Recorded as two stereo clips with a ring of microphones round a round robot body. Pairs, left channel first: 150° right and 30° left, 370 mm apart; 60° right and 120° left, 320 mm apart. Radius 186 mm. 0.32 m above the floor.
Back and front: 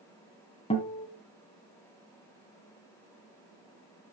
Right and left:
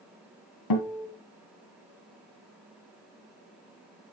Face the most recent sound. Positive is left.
turn(degrees=-75)